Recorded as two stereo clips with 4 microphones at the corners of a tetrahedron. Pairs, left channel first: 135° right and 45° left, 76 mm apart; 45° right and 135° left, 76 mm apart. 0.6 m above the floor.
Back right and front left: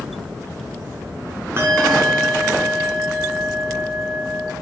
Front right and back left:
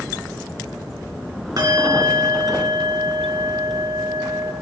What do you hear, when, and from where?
1.6 s a bell: 105° left, 2.5 m